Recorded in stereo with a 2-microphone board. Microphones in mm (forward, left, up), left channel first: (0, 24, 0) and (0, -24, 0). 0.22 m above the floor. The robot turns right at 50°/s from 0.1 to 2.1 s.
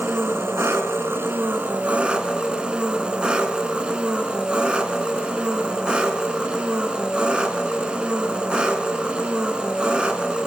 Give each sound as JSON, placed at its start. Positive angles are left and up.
{"t": 0.0, "sound": "an engine running", "azimuth_deg": -120, "distance_m": 1.7}